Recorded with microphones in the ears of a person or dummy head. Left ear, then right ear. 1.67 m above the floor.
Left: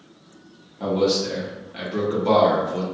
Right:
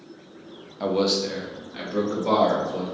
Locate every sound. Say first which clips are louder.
0.8 s a man speaking: left 2 dB; 40° right (ahead or behind), 0.6 m; by 2.9 s 10° left (ahead or behind), 1.4 m